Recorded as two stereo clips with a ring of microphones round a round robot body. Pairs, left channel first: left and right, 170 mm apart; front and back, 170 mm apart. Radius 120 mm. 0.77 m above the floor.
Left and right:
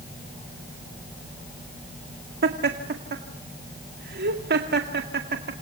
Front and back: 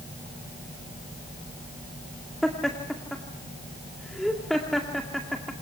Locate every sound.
2.4 s laughter: 90° right, 2 m